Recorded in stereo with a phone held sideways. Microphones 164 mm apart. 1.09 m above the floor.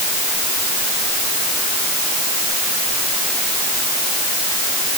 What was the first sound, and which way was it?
Only background noise.